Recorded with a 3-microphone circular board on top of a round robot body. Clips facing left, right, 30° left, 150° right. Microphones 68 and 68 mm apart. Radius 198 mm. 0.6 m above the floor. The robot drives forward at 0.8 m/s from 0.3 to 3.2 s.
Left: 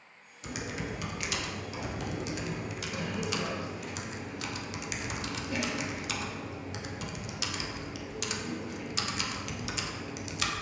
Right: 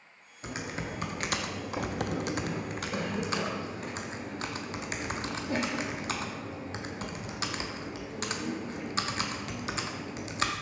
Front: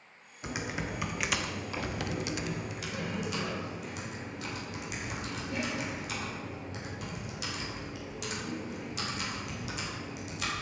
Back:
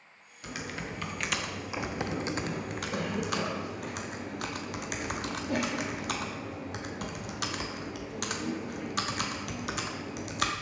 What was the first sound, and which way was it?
Typing on a keyboard, 35° right.